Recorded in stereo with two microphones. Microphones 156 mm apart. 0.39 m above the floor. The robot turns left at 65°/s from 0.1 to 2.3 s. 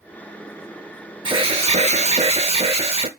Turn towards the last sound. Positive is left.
turn(degrees=-115)